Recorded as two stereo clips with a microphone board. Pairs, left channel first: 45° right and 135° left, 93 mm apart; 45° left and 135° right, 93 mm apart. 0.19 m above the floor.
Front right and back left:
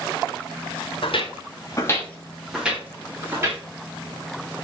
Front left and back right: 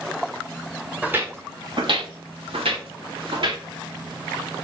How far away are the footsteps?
About 1.4 m.